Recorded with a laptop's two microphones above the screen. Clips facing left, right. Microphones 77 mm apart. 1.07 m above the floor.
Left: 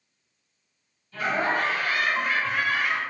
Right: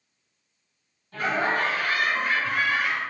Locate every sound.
1.1 s laughter: 45° right (ahead or behind), 1.3 m